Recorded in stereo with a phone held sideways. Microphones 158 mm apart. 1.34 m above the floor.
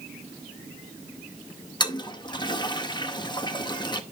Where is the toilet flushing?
30° left (ahead or behind), 0.7 m.